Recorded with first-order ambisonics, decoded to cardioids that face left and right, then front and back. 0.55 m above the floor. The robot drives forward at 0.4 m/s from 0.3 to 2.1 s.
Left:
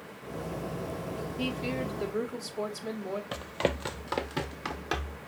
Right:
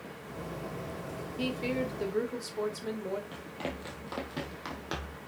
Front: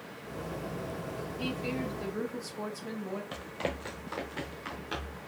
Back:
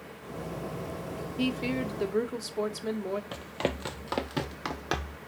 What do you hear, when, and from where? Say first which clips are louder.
1.4 s a woman speaking: right 2 dB, back 5 dB; 165° right, 1.5 m
3.3 s running footsteps: left 8 dB, back 3 dB; 110° left, 0.7 m; by 5.2 s 175° left, 1.2 m